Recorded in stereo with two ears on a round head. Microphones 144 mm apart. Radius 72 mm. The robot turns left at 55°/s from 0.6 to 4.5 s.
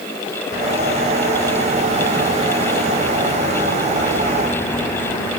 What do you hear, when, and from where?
Only background noise.